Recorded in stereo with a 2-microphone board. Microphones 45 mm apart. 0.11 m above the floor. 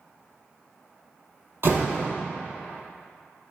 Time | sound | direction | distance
1.6 | a door slam | 60° right (ahead or behind) | 1.8 m